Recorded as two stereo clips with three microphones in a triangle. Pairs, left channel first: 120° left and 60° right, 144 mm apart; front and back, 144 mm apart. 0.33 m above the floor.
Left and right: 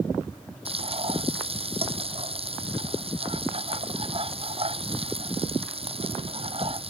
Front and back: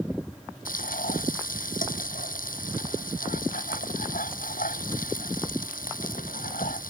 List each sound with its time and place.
0.7 s frying: 10° right